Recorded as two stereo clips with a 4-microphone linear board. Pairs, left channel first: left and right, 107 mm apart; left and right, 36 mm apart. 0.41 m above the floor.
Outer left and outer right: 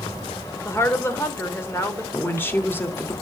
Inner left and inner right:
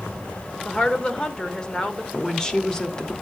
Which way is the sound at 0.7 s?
25° left (ahead or behind).